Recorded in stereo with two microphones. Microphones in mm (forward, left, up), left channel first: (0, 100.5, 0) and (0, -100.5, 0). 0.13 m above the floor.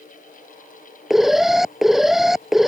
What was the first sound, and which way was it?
An alarm, centre (ahead or behind).